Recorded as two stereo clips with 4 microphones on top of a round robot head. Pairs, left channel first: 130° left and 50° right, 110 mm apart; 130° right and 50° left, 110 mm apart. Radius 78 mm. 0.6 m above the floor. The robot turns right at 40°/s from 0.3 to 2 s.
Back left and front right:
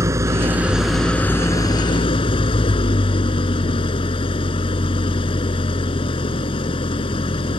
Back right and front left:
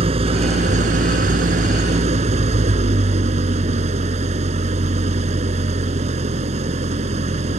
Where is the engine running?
15° left; by 7.6 s 80° left.